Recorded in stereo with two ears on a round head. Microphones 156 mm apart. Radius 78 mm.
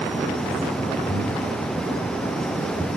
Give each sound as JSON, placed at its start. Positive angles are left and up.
{"t": 1.1, "sound": "breathing", "side_deg": 15, "distance_m": 3.0}